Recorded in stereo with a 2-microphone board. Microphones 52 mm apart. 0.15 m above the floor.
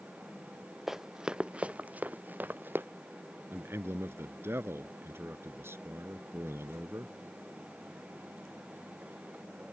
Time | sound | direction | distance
0.9 | running footsteps | 5° right (ahead or behind) | ?
3.5 | a man speaking | 50° right (ahead or behind) | ?